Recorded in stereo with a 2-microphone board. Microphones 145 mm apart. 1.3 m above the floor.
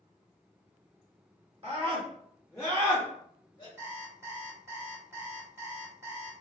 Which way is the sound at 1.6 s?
40° right (ahead or behind).